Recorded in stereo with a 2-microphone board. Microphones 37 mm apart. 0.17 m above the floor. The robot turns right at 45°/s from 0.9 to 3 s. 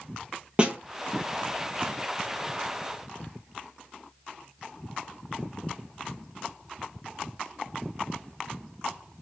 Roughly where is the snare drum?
Right.